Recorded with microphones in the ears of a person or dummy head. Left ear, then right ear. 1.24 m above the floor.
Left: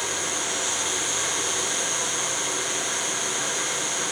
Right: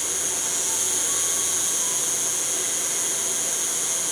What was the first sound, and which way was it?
An insect, 10° left (ahead or behind).